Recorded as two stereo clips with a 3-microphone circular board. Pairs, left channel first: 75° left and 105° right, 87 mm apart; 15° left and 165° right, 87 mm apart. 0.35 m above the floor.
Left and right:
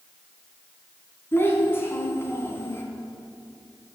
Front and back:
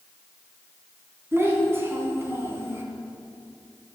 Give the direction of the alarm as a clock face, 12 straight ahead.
I don't hear an alarm.